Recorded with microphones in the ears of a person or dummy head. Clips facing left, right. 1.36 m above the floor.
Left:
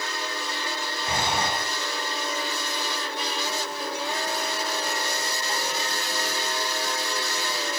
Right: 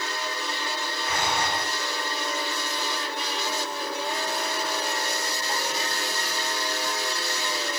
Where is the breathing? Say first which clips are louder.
Left 1 dB; 30° left (ahead or behind), 4.5 m.